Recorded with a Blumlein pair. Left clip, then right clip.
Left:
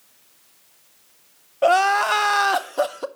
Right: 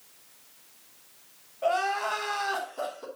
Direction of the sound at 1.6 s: 55° left.